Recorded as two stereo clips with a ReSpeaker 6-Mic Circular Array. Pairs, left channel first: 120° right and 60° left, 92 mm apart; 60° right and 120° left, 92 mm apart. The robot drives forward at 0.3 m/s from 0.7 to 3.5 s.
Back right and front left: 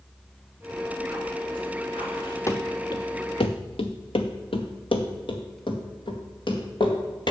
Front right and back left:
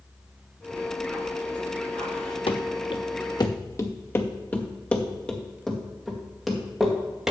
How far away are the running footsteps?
About 1.2 m.